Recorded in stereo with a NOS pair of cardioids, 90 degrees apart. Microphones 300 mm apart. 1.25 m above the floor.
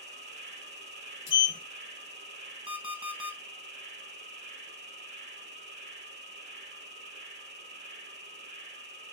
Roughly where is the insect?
Ahead right.